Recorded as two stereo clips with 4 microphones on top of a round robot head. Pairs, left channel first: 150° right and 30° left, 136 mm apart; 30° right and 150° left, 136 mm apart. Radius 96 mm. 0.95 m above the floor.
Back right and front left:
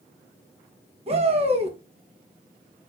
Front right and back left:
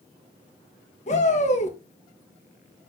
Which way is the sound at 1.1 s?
5° right.